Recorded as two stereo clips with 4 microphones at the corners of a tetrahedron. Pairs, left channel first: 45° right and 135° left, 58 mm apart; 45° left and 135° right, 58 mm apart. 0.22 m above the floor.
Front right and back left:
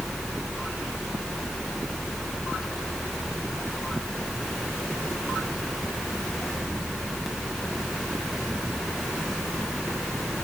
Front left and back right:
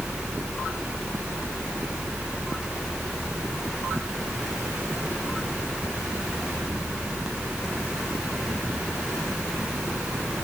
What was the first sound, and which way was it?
Only background noise.